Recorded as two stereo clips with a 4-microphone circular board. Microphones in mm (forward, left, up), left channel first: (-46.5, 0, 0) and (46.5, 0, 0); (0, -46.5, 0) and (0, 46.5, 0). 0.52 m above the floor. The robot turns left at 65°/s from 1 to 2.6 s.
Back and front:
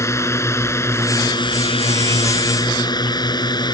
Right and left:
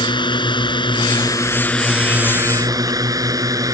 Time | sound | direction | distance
0.0 | a drone | 120° right | ?